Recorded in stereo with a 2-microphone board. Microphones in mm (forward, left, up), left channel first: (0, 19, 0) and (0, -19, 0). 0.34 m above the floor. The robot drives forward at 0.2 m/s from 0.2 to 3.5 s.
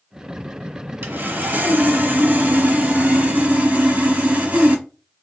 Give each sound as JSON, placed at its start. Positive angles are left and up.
{"t": 1.0, "sound": "sawing", "side_deg": -60, "distance_m": 0.8}